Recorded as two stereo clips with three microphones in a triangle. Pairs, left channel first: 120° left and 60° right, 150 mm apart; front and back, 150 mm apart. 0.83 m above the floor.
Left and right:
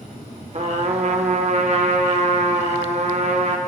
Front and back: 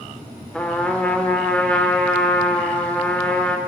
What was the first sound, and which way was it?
A trumpet, 80° right.